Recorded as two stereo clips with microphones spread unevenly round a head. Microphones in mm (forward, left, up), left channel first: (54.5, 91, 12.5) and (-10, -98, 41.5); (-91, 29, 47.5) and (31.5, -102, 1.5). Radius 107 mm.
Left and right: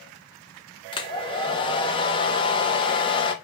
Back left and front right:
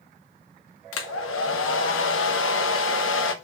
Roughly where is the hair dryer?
Behind left.